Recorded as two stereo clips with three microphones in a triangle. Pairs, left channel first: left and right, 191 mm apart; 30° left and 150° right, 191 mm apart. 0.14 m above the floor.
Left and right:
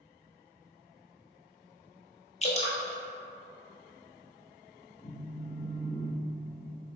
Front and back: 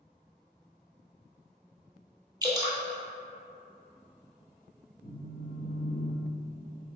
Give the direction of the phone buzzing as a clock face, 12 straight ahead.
10 o'clock.